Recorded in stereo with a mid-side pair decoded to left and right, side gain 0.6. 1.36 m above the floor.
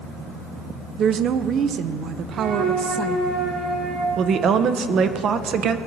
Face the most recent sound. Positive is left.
turn(degrees=-50)